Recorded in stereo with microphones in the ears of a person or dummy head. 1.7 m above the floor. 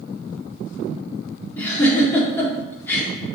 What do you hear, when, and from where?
1.6 s a giggle: 10° left (ahead or behind), 1.5 m